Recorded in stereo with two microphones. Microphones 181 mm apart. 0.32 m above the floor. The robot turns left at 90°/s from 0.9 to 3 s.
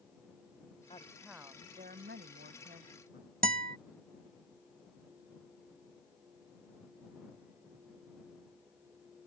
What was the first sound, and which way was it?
A woman speaking, 35° left.